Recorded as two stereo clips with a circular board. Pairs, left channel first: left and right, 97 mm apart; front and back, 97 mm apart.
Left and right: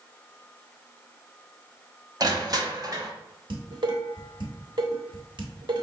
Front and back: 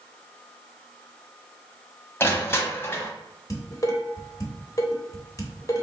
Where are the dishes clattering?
55° right, 1.0 m.